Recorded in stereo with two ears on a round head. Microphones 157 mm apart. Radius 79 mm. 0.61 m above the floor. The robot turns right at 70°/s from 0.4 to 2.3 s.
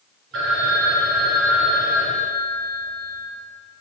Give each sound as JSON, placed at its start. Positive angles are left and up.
{"t": 0.3, "sound": "a phone ringing", "azimuth_deg": -90, "distance_m": 5.5}